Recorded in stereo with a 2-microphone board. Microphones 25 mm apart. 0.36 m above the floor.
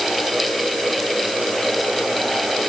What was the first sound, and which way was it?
Only background noise.